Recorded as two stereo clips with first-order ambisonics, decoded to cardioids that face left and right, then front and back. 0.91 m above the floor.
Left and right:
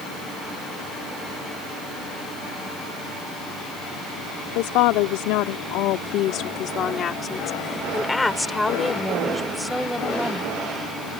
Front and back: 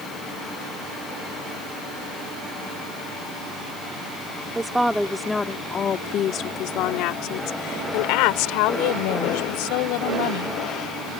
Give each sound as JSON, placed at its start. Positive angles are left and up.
{"t": 4.5, "sound": "a woman speaking", "azimuth_deg": 100}